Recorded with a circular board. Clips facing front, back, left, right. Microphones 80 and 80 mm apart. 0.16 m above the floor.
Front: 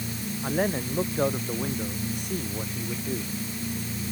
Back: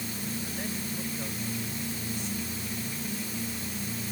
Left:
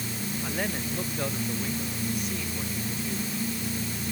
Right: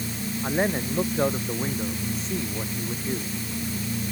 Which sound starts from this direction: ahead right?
A man speaking, at 0.4 s.